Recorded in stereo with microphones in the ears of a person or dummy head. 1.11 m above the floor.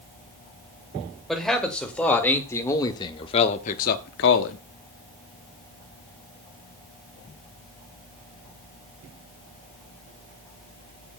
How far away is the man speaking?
About 2.5 m.